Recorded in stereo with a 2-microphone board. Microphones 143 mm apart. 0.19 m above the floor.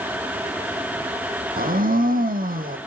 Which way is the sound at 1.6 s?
85° right.